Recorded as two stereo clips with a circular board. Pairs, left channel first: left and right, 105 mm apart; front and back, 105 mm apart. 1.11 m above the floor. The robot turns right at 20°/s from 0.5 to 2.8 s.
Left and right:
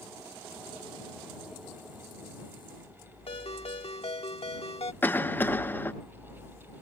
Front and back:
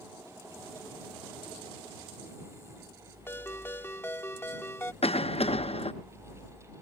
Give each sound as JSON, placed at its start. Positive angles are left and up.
{"t": 3.3, "sound": "a ringtone", "azimuth_deg": 70}
{"t": 5.0, "sound": "a cough", "azimuth_deg": 20}